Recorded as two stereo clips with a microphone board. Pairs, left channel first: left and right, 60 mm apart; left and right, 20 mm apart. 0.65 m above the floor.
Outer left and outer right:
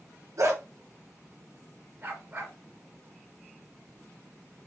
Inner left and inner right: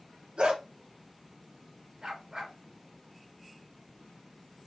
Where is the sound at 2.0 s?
35° right (ahead or behind), 3 m.